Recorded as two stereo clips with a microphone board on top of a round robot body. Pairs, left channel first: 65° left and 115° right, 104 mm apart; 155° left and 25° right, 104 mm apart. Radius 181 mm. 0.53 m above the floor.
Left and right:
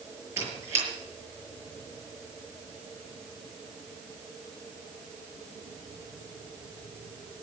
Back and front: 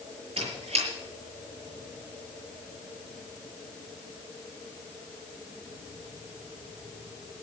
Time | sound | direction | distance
0.4 | a squeak | 50° right | 7 m